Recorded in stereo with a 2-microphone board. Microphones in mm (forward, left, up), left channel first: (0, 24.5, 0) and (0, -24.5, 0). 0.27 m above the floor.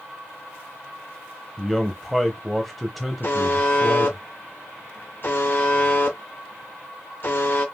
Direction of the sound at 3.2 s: 50° left (ahead or behind).